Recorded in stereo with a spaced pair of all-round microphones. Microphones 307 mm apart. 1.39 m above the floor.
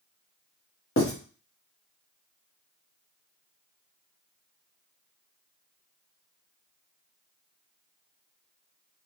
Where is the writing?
40° left (ahead or behind), 1.0 m.